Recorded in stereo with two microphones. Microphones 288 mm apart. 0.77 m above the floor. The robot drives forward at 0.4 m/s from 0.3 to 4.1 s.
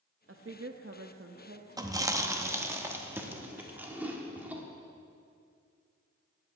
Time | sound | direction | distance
0.3 | a woman speaking | 45° right (ahead or behind) | 0.6 m
1.8 | chewing | 15° right (ahead or behind) | 0.7 m